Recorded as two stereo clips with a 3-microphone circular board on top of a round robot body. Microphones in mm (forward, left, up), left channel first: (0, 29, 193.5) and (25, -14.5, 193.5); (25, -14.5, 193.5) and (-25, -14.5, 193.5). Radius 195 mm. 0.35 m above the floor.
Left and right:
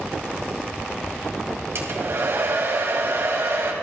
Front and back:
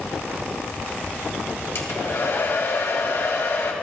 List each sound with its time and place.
1.8 s a hair dryer: 25° right, 2.0 m